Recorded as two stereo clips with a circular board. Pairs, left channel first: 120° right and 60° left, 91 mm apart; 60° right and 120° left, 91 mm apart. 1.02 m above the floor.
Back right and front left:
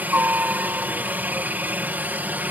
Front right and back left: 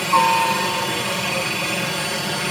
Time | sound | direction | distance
0.0 | a helicopter | 30° left | ?